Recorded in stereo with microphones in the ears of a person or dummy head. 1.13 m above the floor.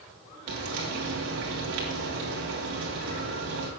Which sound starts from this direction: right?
Frying, at 0.5 s.